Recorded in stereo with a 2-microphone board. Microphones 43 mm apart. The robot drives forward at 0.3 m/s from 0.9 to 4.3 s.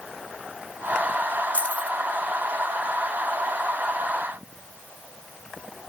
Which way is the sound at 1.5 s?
35° left (ahead or behind).